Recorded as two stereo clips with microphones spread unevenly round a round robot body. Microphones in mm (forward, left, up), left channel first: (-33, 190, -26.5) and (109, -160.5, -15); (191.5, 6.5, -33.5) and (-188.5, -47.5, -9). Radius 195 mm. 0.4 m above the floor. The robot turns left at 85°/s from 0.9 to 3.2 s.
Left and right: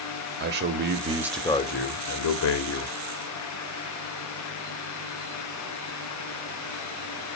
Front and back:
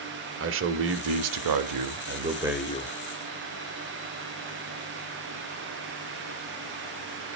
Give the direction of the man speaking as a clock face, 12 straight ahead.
4 o'clock.